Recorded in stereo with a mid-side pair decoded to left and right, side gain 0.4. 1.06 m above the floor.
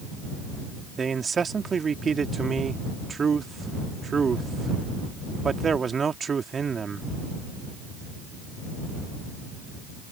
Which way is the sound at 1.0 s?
45° right.